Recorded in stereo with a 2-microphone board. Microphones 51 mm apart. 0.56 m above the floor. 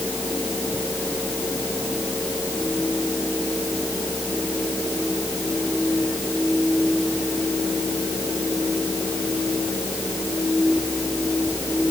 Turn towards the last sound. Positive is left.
No sound to turn to.